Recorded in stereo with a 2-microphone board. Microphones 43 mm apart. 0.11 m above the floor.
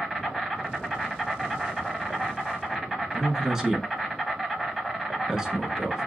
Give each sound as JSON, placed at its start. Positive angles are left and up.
{"t": 0.0, "sound": "an insect", "side_deg": 0, "distance_m": 1.1}
{"t": 3.1, "sound": "a man speaking", "side_deg": -15, "distance_m": 1.1}